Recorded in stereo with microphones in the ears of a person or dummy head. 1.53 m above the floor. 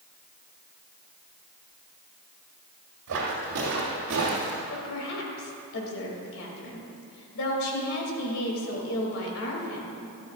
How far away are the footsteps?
About 3 m.